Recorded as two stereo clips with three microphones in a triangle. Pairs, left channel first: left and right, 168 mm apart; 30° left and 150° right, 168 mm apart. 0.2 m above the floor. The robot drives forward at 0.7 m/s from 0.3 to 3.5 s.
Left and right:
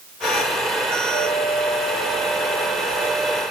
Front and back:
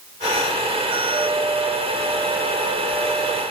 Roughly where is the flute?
Behind left.